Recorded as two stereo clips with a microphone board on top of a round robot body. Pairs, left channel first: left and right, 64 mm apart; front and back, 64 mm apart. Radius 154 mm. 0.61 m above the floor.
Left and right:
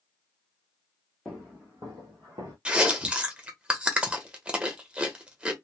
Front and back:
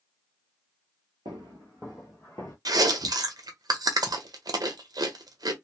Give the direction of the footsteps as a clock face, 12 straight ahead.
6 o'clock.